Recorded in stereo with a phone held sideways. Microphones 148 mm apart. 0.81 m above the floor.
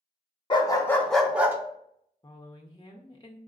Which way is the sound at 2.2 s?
25° left (ahead or behind).